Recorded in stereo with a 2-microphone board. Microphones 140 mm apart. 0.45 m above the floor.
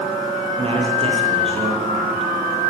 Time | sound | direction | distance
0.6 | a man speaking | 40° right (ahead or behind) | 9 m